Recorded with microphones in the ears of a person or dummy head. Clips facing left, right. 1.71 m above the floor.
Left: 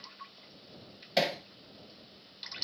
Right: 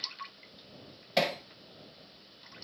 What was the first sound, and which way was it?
Hammering, centre (ahead or behind).